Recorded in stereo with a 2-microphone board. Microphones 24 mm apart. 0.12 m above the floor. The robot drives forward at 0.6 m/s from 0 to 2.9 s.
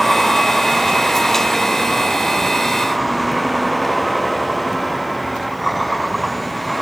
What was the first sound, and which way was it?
A vehicle, 5° left (ahead or behind).